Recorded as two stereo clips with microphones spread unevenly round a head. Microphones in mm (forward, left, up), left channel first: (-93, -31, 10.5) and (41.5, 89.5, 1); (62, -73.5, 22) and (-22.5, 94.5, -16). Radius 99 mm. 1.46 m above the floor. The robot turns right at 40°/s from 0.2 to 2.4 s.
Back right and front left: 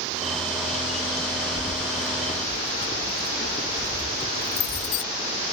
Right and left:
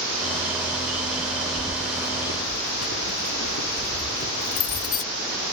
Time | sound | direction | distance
1.6 | keys jangling | 115° right | ?